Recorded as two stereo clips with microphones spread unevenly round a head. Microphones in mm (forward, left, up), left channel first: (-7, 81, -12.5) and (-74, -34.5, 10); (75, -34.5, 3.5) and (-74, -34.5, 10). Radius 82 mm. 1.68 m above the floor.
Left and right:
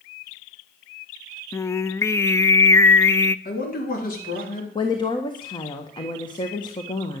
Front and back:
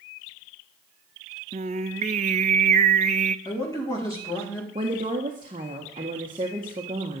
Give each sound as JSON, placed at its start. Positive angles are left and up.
{"t": 1.5, "sound": "singing", "azimuth_deg": 135, "distance_m": 0.5}
{"t": 3.5, "sound": "a man speaking", "azimuth_deg": 70, "distance_m": 4.5}
{"t": 4.8, "sound": "a woman speaking", "azimuth_deg": 120, "distance_m": 1.5}